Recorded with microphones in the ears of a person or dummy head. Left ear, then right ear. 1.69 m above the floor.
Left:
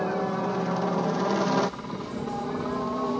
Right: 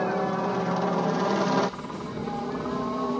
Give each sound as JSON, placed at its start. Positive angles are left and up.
{"t": 0.0, "sound": "a helicopter", "side_deg": -10}